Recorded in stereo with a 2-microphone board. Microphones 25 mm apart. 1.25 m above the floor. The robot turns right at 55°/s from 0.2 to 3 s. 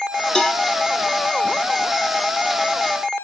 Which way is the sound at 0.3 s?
35° left (ahead or behind).